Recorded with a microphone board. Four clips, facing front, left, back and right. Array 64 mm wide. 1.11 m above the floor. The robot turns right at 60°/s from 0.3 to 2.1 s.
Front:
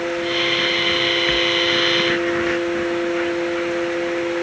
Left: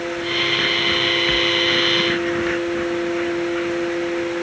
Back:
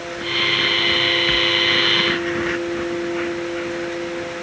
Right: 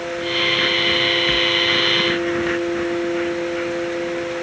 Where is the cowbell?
No cowbell in this recording.